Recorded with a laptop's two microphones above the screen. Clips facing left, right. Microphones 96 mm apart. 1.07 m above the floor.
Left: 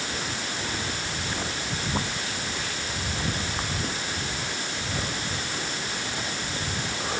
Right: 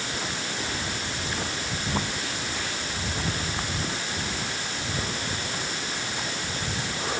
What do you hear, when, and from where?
Only background noise.